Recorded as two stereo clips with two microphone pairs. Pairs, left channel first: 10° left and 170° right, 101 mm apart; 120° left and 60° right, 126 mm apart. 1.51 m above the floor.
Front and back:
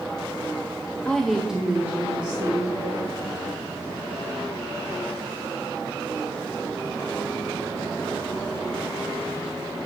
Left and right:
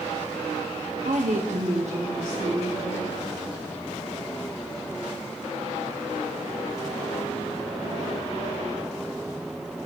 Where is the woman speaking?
65° right, 0.6 m; by 3.0 s 95° right, 2.5 m.